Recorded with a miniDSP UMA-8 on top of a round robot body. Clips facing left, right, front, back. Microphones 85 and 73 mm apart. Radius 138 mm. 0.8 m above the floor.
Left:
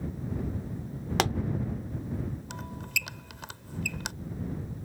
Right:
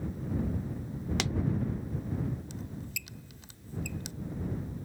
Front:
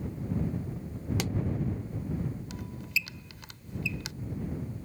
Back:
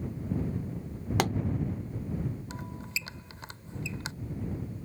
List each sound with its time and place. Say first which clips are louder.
1.2 s a pop: left 10 dB, back 8 dB; 135° left
2.5 s a squeak: left 4 dB, front 3 dB; 120° left